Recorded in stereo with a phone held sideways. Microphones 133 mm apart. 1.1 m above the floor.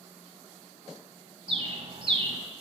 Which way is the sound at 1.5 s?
45° right (ahead or behind).